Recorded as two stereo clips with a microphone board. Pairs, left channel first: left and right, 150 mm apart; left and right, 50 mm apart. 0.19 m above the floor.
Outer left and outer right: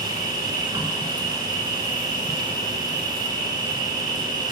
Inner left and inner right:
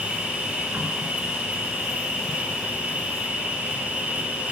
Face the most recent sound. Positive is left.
turn(degrees=-30)  # may be behind; listen again after turning